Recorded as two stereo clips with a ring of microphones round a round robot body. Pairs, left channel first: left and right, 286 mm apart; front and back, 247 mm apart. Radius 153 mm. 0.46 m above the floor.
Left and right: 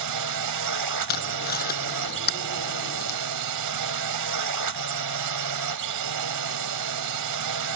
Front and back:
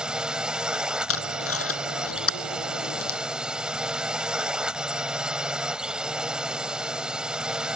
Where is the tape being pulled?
30° left.